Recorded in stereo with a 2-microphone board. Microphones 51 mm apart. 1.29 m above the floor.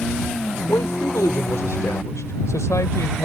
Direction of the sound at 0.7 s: 85° left.